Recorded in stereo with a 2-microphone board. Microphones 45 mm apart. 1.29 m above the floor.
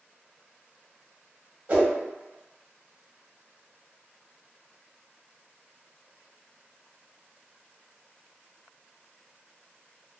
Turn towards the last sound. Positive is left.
turn(degrees=-40)  # may be behind; listen again after turning